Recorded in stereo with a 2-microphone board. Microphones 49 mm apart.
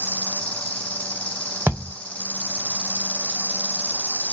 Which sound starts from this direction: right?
A thud, at 1.7 s.